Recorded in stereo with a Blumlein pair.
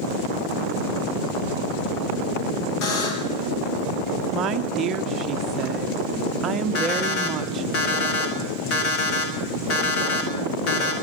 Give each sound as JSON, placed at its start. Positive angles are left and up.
{"t": 2.8, "sound": "a buzzer", "azimuth_deg": 45, "distance_m": 2.5}
{"t": 4.3, "sound": "a woman speaking", "azimuth_deg": -25, "distance_m": 0.8}
{"t": 6.8, "sound": "an alarm clock", "azimuth_deg": 45, "distance_m": 2.5}